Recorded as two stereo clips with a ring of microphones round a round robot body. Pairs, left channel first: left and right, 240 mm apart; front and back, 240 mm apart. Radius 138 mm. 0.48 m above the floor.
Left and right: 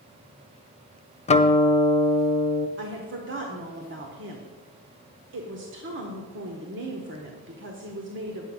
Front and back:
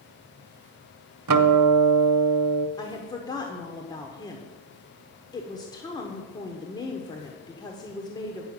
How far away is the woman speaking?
About 1.2 m.